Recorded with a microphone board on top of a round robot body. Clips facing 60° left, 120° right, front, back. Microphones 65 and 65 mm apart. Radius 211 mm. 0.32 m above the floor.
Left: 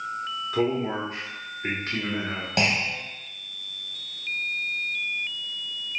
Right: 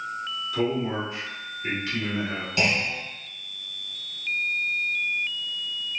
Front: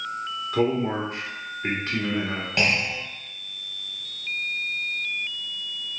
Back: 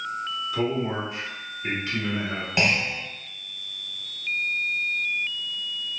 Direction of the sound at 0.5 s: 25° left.